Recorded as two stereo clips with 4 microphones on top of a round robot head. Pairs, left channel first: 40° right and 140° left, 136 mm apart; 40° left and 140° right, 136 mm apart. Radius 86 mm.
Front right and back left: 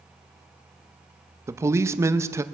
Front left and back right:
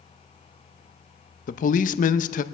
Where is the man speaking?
70° left, 0.7 m.